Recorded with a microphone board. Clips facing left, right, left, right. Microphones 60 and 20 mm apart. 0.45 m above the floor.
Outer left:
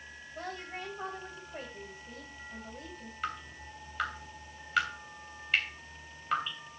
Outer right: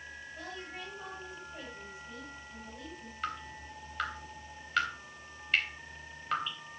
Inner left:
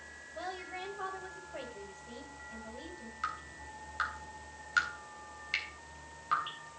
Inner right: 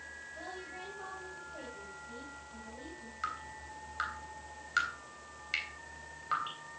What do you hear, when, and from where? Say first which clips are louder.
0.3 s a woman speaking: outer left 5 dB, inner left 6 dB; 45° left (ahead or behind), 2.5 m
3.2 s dripping: even, even; 5° left (ahead or behind), 3 m